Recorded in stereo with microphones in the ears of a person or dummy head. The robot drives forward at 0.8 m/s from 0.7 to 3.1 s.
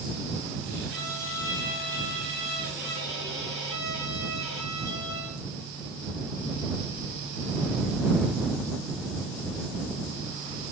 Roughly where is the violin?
Centre.